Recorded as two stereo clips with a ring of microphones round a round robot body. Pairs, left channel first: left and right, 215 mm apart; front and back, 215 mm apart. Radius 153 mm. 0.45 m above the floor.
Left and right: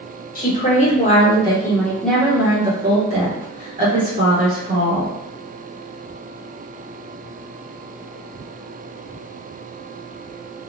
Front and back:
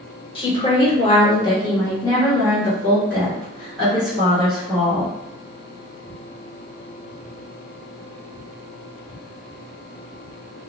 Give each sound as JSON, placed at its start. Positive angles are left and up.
{"t": 0.3, "sound": "a woman speaking", "azimuth_deg": 60, "distance_m": 1.5}